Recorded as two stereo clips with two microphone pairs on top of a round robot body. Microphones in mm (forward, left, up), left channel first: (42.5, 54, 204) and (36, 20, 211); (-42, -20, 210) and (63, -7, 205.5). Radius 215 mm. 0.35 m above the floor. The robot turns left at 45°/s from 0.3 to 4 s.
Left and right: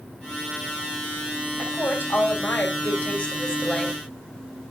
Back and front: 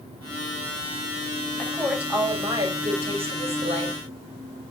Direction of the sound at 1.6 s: 105° left.